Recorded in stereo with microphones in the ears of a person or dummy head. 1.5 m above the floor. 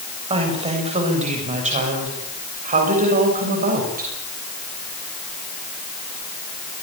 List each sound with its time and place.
0.3 s a woman speaking: 30° right (ahead or behind), 7.5 m; by 4.1 s 45° right (ahead or behind), 7 m